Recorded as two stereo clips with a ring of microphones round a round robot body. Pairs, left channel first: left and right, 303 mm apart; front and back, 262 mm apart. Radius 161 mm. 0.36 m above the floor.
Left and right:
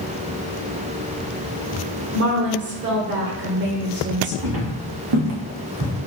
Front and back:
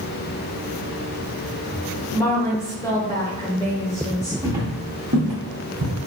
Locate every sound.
2.1 s a woman speaking: 70° right, 1.1 m
4.4 s footsteps: 100° right, 2 m; by 5.9 s 140° right, 1.5 m